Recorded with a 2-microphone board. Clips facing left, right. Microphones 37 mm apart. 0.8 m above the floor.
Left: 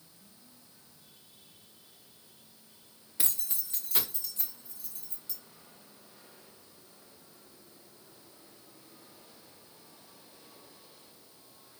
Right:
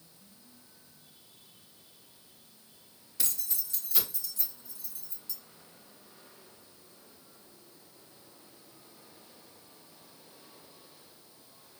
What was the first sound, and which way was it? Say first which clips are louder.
Keys jangling: even; 20° left (ahead or behind).